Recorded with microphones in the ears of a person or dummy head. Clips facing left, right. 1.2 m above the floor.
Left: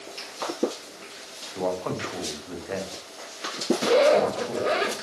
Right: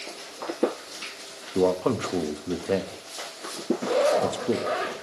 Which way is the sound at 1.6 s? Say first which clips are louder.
Right 6 dB; 45° right (ahead or behind).